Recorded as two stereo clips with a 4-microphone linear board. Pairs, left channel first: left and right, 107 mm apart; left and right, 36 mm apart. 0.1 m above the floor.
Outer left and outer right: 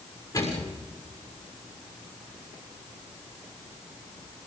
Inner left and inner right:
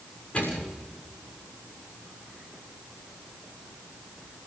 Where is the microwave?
35° left (ahead or behind), 6.5 m.